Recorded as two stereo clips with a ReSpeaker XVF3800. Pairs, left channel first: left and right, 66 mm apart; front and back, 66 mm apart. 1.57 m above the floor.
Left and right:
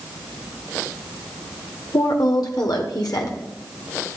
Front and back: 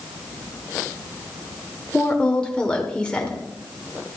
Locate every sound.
1.9 s a woman speaking: 75° left, 1.2 m